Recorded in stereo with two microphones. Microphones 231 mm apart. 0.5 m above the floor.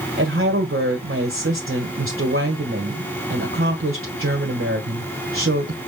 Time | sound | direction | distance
0.2 | a woman speaking | 65° right (ahead or behind) | 1.7 m